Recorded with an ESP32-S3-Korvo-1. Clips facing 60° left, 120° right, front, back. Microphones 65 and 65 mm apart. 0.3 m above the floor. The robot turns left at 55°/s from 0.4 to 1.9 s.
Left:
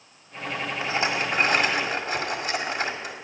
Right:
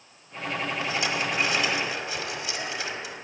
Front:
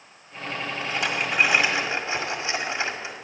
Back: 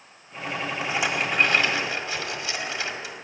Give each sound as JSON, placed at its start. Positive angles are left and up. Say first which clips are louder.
{"t": 0.8, "sound": "a rattle", "louder": "left 5 dB, back 1 dB", "azimuth_deg": 110, "distance_m": 1.6}